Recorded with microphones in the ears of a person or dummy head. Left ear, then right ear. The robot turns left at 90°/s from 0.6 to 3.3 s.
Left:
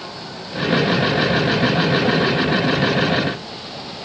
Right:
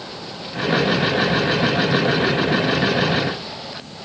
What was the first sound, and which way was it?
Only background noise.